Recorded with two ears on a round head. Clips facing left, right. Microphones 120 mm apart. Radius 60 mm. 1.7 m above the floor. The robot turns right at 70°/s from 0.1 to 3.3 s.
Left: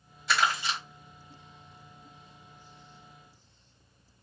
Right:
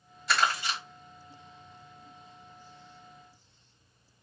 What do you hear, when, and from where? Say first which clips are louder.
0.3 s crumpling: even; centre (ahead or behind), 1.6 m; by 0.8 s 30° left (ahead or behind), 1.6 m